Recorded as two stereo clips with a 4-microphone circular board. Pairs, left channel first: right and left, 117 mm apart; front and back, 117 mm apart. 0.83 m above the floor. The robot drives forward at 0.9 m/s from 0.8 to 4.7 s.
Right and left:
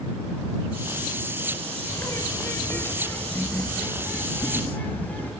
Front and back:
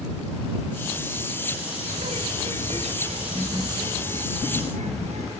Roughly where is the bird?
Behind right.